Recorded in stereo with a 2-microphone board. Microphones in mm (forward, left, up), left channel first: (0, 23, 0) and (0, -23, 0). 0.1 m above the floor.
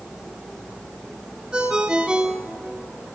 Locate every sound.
1.5 s a ringtone: 20° right (ahead or behind), 1.3 m